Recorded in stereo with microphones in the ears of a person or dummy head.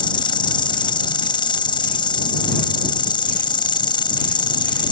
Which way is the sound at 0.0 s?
25° left (ahead or behind).